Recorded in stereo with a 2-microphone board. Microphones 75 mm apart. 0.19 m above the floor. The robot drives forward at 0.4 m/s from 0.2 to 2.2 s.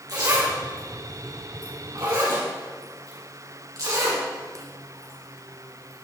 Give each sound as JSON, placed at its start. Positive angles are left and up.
{"t": 0.1, "sound": "a zipper", "side_deg": -60, "distance_m": 4.0}